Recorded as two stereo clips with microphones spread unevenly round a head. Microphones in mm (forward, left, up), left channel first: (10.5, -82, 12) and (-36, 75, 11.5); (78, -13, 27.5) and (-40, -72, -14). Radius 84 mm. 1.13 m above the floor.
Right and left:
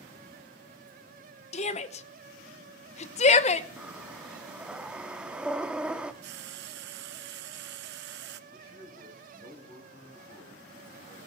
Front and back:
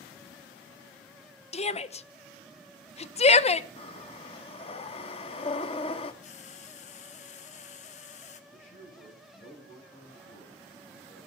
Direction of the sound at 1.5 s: 25° right.